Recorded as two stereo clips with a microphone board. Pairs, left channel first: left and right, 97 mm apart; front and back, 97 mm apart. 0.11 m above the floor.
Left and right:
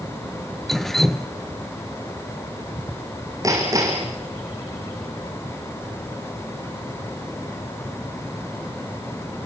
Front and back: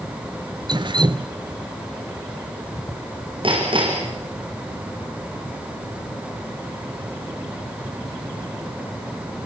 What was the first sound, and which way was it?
Dripping, 175° left.